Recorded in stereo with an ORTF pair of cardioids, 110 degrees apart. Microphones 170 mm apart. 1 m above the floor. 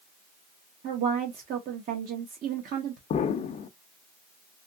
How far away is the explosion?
About 0.5 m.